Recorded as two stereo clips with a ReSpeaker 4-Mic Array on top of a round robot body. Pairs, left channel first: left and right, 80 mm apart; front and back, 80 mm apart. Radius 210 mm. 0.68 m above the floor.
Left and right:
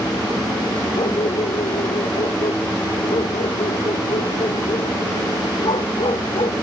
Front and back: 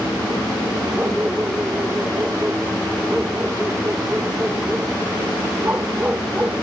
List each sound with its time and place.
0.9 s a dog barking: 110° left